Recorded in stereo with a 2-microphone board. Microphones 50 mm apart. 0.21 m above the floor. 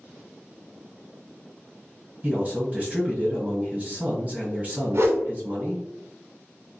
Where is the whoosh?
60° right (ahead or behind), 0.7 m.